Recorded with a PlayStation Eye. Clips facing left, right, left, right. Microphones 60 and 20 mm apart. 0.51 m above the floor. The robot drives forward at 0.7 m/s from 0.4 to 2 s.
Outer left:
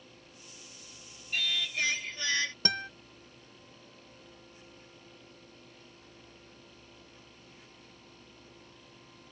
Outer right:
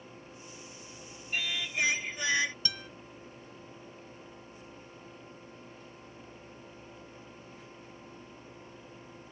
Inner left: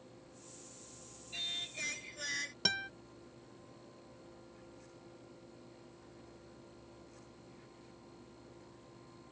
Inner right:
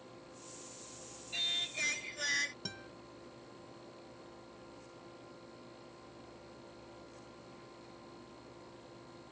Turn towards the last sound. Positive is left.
turn(degrees=55)  # may be behind; listen again after turning